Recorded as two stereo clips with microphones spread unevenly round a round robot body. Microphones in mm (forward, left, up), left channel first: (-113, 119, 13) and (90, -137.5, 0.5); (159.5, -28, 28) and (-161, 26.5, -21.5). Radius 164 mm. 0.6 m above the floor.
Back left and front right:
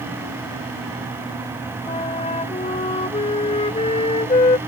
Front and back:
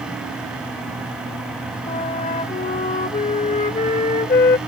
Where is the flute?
55° left.